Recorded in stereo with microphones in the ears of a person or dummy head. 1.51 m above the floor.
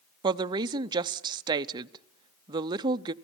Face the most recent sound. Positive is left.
turn(degrees=-25)  # may be behind; listen again after turning